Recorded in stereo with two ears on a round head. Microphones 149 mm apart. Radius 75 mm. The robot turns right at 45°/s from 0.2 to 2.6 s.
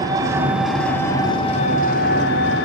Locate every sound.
0.0 s an engine running: 25° right, 2.5 m; by 2.7 s 85° left, 2.5 m